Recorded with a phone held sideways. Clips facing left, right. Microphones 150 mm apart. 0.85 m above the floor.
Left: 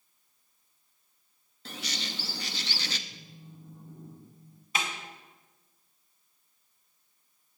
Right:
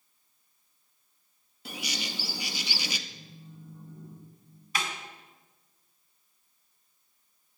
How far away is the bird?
About 0.6 m.